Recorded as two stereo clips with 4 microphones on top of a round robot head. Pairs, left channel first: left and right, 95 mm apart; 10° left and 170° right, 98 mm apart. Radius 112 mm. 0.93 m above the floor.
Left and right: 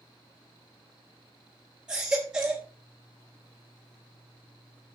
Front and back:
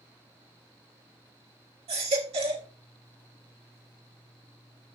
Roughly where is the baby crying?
Behind.